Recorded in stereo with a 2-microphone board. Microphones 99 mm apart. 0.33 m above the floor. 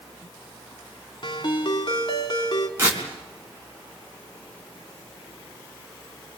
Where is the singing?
No singing in this recording.